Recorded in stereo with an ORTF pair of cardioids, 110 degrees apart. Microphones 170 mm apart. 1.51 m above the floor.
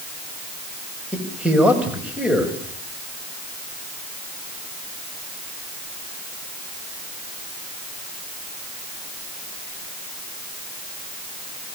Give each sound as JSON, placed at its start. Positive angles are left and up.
{"t": 1.1, "sound": "a man speaking", "azimuth_deg": -5, "distance_m": 7.0}